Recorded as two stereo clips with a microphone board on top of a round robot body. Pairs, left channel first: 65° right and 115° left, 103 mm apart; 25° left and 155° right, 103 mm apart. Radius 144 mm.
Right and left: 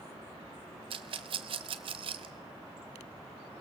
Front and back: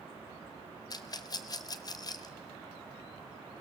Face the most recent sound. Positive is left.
turn(degrees=75)